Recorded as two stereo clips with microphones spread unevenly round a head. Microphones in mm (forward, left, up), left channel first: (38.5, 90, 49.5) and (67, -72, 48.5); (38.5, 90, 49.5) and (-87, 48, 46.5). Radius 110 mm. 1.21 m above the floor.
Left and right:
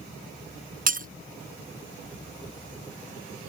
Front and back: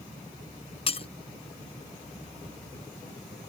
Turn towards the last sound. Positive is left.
turn(degrees=-45)